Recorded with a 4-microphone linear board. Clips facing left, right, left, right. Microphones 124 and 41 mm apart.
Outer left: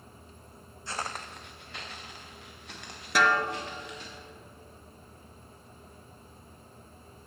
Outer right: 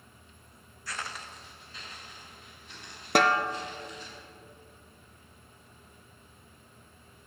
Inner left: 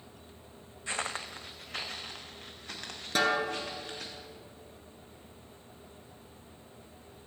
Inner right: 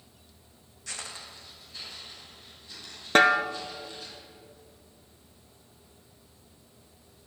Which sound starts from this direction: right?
A snare drum, at 3.1 s.